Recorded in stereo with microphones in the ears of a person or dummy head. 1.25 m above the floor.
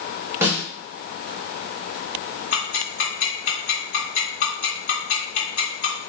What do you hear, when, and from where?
0.4 s a snare drum: 15° right (ahead or behind), 1.0 m
2.5 s ticking: 50° left (ahead or behind), 1.8 m